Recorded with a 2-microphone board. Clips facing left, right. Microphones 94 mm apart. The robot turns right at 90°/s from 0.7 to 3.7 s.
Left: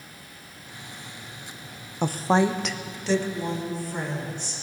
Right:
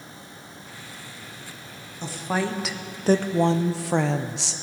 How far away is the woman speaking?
About 0.6 m.